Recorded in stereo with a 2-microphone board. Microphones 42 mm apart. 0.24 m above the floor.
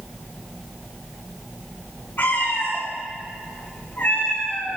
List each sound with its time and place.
2.2 s a cat meowing: 55° left (ahead or behind), 7 m; by 4.8 s 45° left (ahead or behind), 8.5 m